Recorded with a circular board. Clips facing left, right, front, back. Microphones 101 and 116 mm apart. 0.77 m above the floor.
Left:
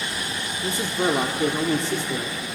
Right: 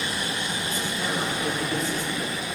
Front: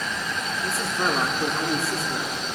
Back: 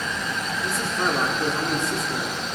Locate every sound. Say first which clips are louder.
0.6 s a man speaking: left 5 dB, even; 90° left, 1.6 m